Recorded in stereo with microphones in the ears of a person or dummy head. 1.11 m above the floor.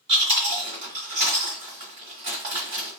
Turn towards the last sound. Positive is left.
turn(degrees=-35)  # may be behind; listen again after turning